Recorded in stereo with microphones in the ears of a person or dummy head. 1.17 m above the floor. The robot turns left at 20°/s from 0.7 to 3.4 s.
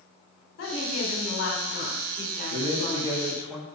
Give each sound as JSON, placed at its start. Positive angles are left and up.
{"t": 0.6, "sound": "a woman speaking", "azimuth_deg": 85, "distance_m": 3.5}
{"t": 2.5, "sound": "a man speaking", "side_deg": -40, "distance_m": 1.6}